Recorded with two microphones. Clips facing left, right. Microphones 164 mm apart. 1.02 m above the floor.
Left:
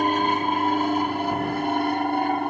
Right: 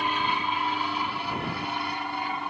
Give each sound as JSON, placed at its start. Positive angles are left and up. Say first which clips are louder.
{"t": 0.0, "sound": "an aircraft", "louder": "left 7 dB", "side_deg": 45}